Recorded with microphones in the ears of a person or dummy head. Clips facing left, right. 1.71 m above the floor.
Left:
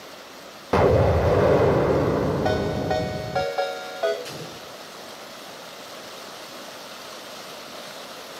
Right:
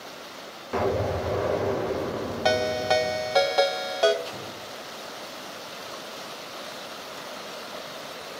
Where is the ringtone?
50° right (ahead or behind), 3 m.